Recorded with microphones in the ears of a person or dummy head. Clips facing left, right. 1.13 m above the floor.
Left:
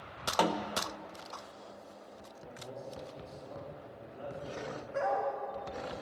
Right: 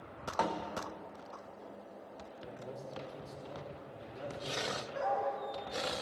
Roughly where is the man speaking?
Centre.